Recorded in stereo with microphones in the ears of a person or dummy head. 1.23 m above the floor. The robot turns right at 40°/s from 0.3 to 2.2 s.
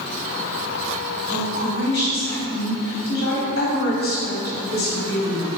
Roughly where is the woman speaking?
Left.